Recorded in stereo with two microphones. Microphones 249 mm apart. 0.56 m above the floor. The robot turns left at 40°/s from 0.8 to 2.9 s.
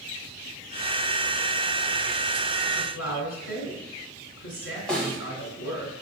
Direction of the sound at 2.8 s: 70° left (ahead or behind).